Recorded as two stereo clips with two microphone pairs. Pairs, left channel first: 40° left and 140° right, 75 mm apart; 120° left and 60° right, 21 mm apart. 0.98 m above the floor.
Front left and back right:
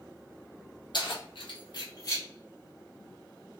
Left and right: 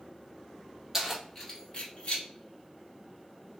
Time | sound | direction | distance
0.9 | keys jangling | 15° left | 0.8 m